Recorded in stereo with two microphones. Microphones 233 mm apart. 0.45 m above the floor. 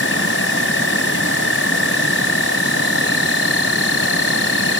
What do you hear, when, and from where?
0.0 s an insect: 65° left (ahead or behind)